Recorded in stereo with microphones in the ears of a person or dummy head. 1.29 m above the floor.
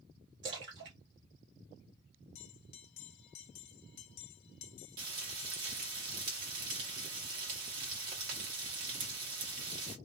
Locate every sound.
0.4 s a splash: 50° right (ahead or behind), 1.1 m
2.4 s a bell: 65° left (ahead or behind), 0.8 m
5.0 s frying: 45° right (ahead or behind), 1.2 m